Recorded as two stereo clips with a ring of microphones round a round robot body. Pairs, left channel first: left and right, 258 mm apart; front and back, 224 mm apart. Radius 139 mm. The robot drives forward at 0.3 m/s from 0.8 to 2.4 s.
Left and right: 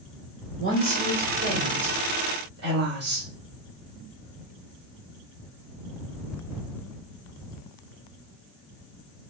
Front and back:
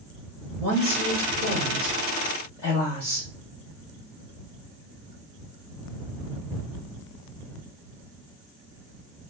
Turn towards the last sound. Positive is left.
turn(degrees=-105)